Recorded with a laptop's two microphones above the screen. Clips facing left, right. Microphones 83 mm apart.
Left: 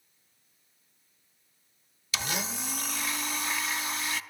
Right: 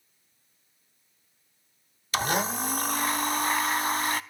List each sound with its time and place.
2.1 s a blender: 45° right (ahead or behind), 0.7 m